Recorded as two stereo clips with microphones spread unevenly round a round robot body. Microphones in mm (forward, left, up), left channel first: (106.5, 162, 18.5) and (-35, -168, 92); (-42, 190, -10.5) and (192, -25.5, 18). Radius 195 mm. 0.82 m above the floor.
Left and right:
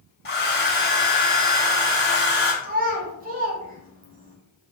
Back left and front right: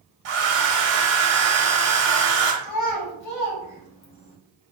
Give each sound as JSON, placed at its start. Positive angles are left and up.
{"t": 0.2, "sound": "a hair dryer", "azimuth_deg": 0, "distance_m": 1.2}
{"t": 2.6, "sound": "a child speaking", "azimuth_deg": 175, "distance_m": 1.0}